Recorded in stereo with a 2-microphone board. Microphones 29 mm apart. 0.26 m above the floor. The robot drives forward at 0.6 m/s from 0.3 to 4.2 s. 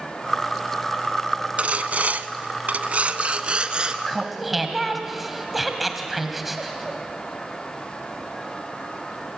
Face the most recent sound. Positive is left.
turn(degrees=-5)  # may be behind; listen again after turning